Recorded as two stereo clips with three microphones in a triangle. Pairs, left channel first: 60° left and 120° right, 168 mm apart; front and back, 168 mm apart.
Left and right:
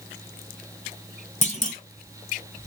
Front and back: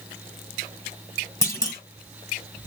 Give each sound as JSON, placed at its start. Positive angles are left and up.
{"t": 1.4, "sound": "a clunk", "azimuth_deg": 60, "distance_m": 0.8}